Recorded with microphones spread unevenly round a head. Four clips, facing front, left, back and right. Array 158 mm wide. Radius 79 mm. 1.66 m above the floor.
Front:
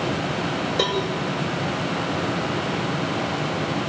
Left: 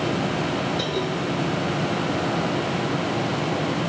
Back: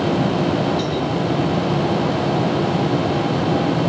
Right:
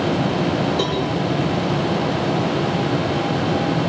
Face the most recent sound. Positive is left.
turn(degrees=-45)